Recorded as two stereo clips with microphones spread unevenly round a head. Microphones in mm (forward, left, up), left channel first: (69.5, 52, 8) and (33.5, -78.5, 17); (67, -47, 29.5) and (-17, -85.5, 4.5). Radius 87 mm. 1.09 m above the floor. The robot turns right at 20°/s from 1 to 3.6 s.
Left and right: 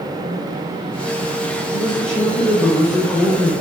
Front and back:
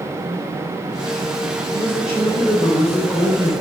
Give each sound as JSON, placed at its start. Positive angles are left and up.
{"t": 1.7, "sound": "a man speaking", "azimuth_deg": -40, "distance_m": 3.0}